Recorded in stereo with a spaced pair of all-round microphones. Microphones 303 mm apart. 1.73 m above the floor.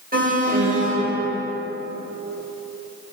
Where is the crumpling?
I don't hear crumpling.